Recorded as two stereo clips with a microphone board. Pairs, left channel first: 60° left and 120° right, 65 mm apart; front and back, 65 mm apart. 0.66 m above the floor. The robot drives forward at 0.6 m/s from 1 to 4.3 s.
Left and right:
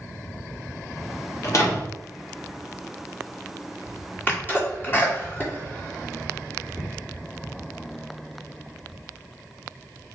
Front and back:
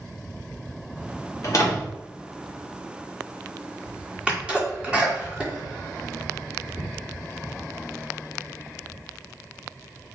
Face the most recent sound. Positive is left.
turn(degrees=110)